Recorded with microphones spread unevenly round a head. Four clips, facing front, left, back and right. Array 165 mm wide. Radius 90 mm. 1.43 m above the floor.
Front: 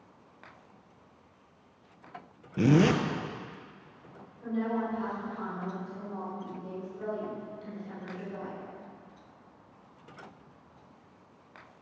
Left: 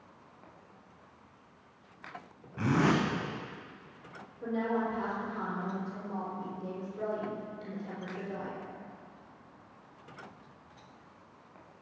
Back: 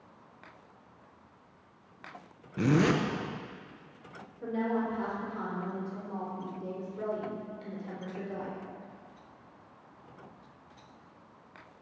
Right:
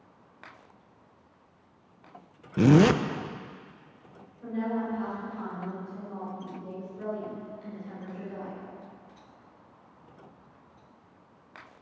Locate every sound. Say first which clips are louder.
2.6 s a zipper: right 8 dB, front 3 dB; 75° right, 0.6 m
4.4 s a woman speaking: even, even; 145° left, 4.5 m